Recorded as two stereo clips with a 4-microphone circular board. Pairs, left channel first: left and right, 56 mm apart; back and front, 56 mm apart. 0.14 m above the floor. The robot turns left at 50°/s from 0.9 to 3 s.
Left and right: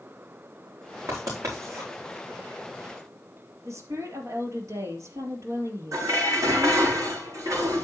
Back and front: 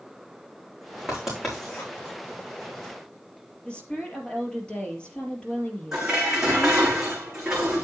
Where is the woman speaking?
110° right, 3.5 m.